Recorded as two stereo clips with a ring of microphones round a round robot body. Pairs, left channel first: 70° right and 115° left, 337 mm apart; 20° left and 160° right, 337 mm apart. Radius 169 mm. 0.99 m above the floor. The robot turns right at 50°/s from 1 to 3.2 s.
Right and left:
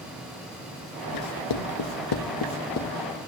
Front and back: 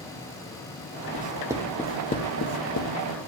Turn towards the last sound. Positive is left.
turn(degrees=10)